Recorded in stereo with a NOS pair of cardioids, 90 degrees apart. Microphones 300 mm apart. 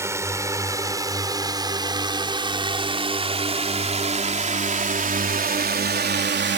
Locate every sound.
0.0 s a drone: 10° right; by 6.6 s 40° right